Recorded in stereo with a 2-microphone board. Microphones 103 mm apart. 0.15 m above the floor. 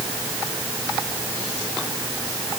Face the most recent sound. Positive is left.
No sound to turn to.